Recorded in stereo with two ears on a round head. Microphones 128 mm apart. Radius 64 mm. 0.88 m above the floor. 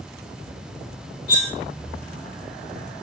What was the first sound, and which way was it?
Cutlery clinking, 80° left.